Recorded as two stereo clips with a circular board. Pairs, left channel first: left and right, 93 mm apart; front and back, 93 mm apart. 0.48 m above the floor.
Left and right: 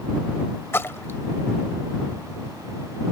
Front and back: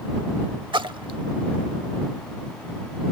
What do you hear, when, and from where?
0.7 s a splash: 155° left